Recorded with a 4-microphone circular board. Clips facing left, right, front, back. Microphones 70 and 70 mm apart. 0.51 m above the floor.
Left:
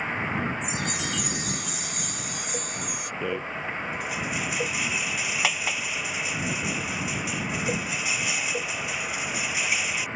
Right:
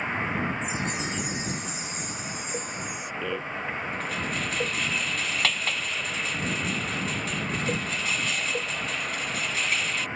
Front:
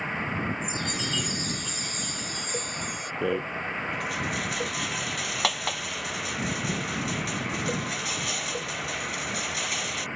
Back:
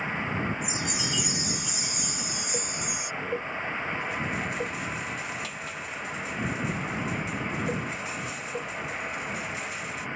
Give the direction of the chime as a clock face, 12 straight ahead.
9 o'clock.